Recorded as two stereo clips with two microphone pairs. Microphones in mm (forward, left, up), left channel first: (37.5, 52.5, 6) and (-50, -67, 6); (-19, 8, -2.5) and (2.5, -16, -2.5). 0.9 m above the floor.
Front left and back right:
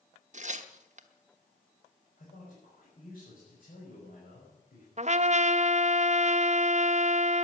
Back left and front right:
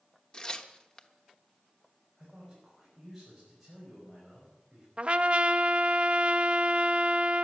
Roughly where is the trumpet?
Right.